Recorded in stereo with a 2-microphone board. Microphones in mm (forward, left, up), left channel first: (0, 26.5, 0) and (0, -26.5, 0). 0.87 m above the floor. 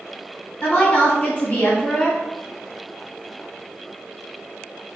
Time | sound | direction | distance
0.6 | a woman speaking | 40° left (ahead or behind) | 1.7 m